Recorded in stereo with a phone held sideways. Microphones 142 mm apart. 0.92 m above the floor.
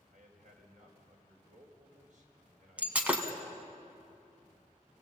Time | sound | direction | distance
0.1 | a man speaking | 65° right (ahead or behind) | 4.5 m
2.8 | breaking glass | 10° right (ahead or behind) | 2 m